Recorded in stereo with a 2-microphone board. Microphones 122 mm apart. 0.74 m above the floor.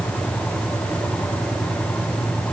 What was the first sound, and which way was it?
Only background noise.